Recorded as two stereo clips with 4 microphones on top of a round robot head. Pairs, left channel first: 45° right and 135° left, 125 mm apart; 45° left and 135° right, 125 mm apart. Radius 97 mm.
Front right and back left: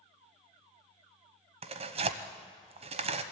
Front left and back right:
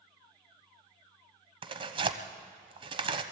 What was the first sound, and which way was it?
Tearing paper, 175° left.